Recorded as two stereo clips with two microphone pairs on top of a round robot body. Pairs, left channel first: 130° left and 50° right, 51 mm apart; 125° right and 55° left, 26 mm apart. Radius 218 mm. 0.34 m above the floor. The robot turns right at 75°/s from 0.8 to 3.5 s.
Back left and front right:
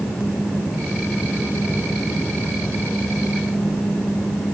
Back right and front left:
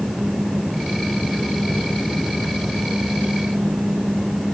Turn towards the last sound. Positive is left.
No sound to turn to.